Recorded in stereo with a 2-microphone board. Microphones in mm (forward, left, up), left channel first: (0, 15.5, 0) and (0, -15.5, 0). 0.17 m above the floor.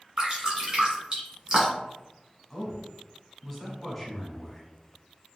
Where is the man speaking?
5° left (ahead or behind), 1.1 m.